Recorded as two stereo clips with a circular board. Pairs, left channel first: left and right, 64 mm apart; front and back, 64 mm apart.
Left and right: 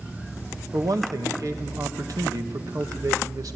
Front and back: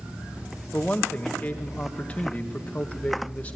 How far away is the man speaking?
About 1.7 m.